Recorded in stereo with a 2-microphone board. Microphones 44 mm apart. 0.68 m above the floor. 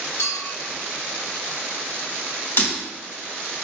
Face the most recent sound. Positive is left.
turn(degrees=60)  # may be behind; listen again after turning